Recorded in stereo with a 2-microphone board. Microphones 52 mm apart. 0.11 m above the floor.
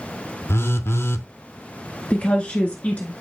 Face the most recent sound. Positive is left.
turn(degrees=30)  # may be behind; listen again after turning